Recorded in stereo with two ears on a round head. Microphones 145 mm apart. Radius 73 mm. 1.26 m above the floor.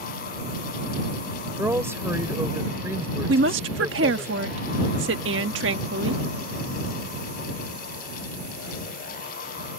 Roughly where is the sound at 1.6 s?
Centre.